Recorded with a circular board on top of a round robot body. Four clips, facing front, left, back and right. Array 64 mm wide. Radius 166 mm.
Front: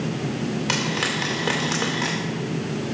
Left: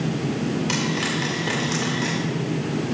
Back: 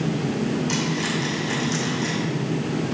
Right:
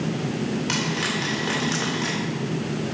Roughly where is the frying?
Ahead.